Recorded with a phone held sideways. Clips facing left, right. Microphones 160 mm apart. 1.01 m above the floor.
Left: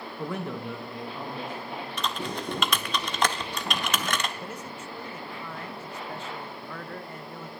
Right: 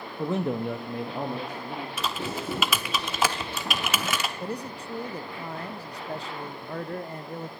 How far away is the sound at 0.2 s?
About 0.6 m.